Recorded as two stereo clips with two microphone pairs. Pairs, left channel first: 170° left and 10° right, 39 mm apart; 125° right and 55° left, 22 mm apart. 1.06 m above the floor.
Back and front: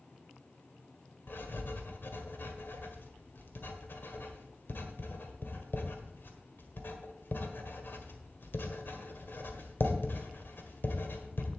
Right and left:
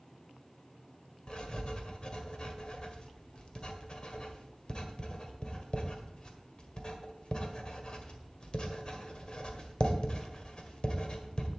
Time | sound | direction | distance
1.3 | writing | 170° right | 1.6 m